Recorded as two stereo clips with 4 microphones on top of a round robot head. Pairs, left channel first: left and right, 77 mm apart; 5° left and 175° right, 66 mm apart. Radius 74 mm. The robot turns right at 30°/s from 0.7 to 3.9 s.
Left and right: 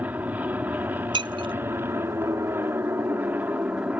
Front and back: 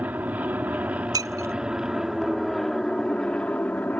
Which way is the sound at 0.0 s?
135° right.